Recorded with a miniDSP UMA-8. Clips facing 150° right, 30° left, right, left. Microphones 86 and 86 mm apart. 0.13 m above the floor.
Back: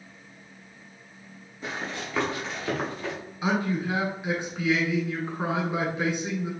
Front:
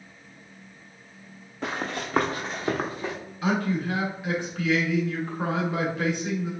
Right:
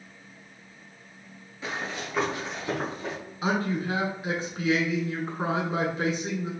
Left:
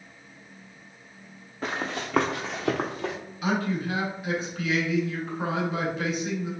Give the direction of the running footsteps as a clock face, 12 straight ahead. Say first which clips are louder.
Front 3 dB, left 3 dB; 10 o'clock.